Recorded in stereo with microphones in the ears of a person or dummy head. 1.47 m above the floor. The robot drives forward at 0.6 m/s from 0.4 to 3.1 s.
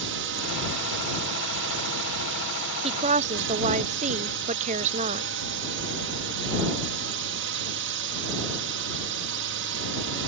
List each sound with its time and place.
0.0 s a drone: 60° right (ahead or behind)
2.8 s a woman speaking: 30° right (ahead or behind); by 5.3 s 35° right (ahead or behind)